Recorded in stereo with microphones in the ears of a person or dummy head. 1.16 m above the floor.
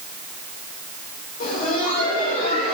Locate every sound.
1.4 s laughter: 45° left (ahead or behind), 3 m